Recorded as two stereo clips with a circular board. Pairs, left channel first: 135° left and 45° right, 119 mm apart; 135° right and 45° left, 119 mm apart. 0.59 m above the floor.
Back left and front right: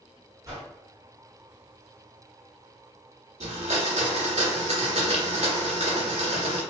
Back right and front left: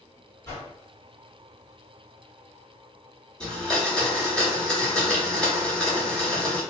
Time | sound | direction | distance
0.5 | a whoosh | 90° right | 1.4 m
3.4 | a blender | 55° right | 1.1 m